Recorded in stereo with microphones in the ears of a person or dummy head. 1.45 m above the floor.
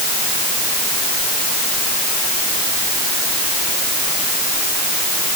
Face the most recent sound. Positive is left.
No sound to turn to.